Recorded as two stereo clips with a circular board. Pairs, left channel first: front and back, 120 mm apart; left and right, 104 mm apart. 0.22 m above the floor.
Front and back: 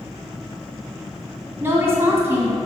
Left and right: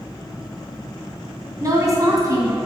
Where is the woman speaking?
125° right, 2.0 m.